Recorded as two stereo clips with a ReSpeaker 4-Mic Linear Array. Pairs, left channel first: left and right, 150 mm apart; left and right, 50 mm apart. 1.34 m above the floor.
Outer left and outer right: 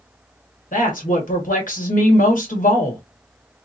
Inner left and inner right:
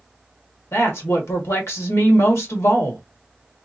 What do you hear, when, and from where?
0.7 s a woman speaking: 70° left (ahead or behind), 1.8 m